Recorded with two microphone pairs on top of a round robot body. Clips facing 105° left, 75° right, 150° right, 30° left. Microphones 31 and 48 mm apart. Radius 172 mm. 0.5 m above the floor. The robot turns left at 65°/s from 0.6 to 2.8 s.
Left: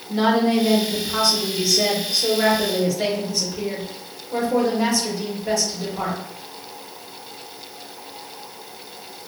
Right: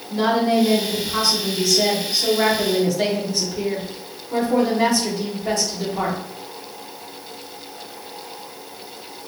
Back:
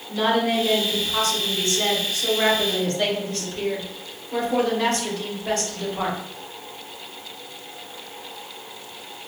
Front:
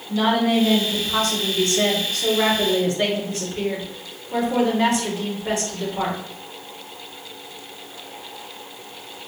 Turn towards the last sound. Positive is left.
turn(degrees=-35)